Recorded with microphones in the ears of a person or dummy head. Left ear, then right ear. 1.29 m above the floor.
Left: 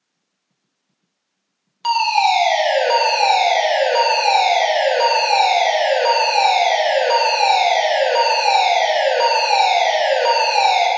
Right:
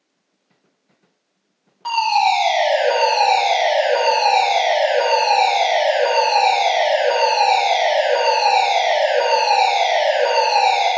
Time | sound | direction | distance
1.8 | a fire alarm | 75° left (ahead or behind) | 3.5 m